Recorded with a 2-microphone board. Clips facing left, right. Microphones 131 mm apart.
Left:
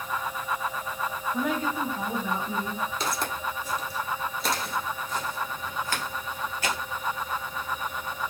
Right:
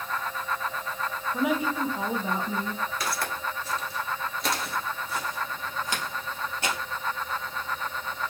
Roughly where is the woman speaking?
Centre.